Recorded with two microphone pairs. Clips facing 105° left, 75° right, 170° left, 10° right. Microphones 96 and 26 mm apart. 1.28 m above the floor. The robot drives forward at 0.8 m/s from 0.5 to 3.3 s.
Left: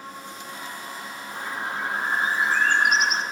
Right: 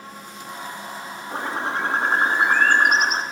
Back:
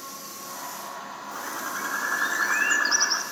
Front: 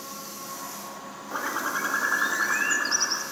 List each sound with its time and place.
1.3 s a bird: 60° right, 1.5 m; by 3.2 s 125° right, 1.6 m